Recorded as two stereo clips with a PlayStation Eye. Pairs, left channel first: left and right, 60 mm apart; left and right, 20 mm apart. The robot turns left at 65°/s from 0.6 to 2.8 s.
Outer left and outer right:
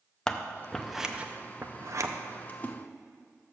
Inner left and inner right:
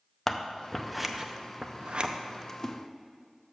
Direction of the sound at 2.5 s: 25° left (ahead or behind).